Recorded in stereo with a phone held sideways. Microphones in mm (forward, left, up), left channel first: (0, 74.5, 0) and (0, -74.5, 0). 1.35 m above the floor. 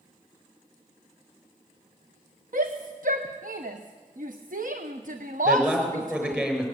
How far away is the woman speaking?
About 5.5 m.